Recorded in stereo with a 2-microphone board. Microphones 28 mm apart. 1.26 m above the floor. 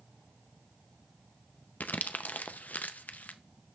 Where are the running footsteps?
No running footsteps in this recording.